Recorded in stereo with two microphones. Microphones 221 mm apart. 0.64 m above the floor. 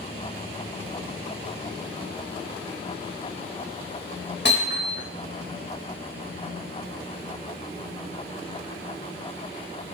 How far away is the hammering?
About 3.5 m.